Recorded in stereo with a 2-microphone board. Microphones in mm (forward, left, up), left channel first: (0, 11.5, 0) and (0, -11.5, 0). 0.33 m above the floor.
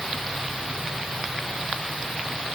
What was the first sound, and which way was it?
Only background noise.